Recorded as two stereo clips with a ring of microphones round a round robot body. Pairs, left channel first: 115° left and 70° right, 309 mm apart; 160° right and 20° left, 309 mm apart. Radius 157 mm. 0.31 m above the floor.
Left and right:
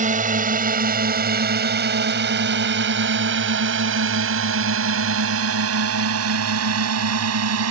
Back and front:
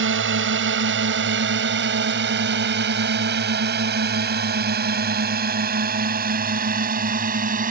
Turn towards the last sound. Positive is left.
turn(degrees=-40)